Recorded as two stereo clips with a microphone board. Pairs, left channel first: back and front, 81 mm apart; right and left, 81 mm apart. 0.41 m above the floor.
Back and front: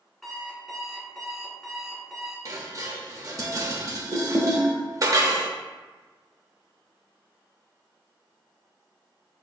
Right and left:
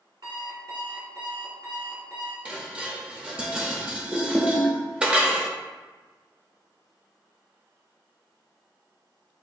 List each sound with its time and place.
0.2 s an alarm clock: 95° left, 1.8 m
2.5 s dishes clattering: 20° left, 0.7 m